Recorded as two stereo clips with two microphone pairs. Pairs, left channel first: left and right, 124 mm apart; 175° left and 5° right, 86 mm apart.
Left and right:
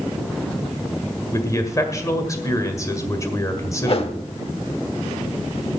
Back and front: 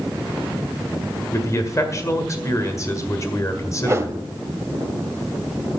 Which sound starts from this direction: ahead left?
A whoosh, at 3.8 s.